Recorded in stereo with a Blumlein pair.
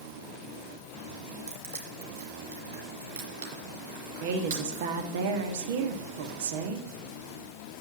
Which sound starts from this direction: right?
Crushing, at 1.5 s.